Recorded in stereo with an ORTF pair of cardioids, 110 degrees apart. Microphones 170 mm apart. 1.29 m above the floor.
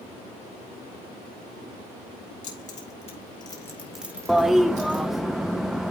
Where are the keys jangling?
50° left, 2.5 m; by 5.0 s 55° right, 1.6 m.